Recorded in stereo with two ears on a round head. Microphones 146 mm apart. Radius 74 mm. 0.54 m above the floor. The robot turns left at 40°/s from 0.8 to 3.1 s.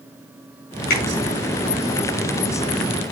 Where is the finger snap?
55° left (ahead or behind), 5 m; by 1.0 s 50° left (ahead or behind), 5 m.